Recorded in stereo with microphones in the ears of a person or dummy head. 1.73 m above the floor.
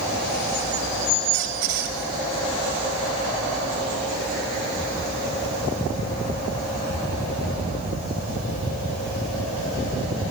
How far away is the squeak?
About 2.5 m.